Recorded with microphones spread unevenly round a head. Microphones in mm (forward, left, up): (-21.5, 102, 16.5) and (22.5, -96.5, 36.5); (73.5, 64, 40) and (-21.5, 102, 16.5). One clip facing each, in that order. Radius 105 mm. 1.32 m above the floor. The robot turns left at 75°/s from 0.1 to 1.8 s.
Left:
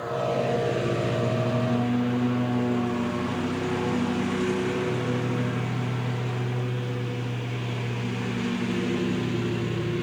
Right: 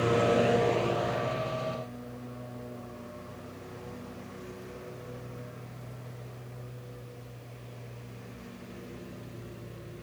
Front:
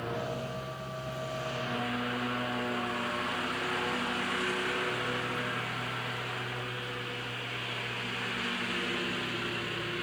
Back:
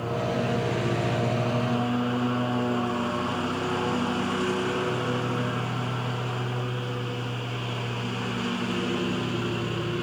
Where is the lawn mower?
130° right; by 10.0 s 100° left.